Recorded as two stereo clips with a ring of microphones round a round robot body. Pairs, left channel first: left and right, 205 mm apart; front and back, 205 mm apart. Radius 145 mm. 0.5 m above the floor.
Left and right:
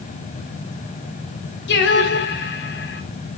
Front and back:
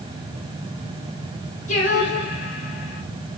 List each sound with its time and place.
1.7 s singing: 65° left, 1.8 m